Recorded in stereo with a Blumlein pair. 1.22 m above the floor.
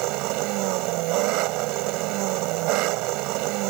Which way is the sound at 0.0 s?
40° right.